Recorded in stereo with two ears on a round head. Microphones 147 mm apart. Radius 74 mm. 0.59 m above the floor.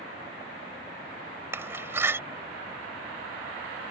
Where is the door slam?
15° right (ahead or behind).